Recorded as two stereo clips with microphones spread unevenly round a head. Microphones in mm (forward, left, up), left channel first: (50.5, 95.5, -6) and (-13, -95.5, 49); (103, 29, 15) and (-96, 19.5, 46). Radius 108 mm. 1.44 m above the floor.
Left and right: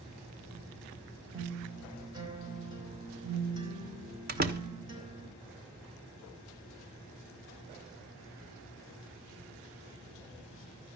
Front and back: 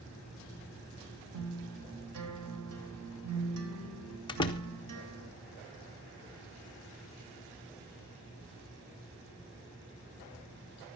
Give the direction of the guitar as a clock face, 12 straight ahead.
6 o'clock.